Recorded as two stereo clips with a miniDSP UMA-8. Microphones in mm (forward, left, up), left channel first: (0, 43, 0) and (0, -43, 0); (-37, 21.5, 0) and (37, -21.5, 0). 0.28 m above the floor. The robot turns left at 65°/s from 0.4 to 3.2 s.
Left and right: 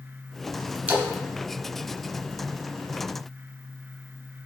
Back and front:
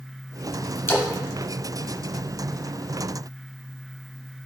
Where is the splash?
155° right, 0.7 m; by 1.1 s 165° right, 0.7 m.